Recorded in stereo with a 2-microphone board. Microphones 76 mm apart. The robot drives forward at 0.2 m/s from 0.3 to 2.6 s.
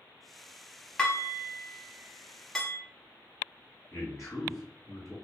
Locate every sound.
1.0 s dishes clattering: 15° left (ahead or behind), 0.8 m; by 2.8 s 10° left (ahead or behind), 1.0 m
3.9 s a man speaking: 45° left (ahead or behind), 1.8 m